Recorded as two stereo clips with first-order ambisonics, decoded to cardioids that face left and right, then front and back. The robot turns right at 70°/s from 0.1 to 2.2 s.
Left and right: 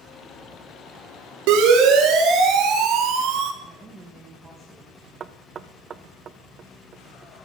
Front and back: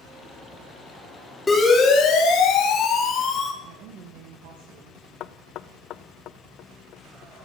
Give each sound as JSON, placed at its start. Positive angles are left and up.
{"t": 1.5, "sound": "a siren", "azimuth_deg": -85, "distance_m": 3.5}
{"t": 3.6, "sound": "a woman speaking", "azimuth_deg": -170, "distance_m": 2.0}
{"t": 5.2, "sound": "knocking", "azimuth_deg": -30, "distance_m": 0.5}